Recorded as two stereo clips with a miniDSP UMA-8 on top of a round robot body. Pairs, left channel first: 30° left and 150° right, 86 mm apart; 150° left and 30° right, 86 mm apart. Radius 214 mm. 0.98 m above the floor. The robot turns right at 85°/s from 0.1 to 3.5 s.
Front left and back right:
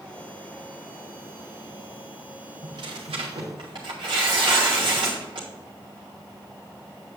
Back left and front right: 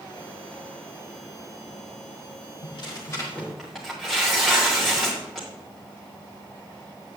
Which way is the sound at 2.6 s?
165° left.